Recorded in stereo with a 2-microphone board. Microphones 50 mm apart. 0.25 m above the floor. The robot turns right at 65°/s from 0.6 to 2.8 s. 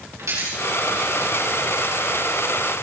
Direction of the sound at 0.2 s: 80° right.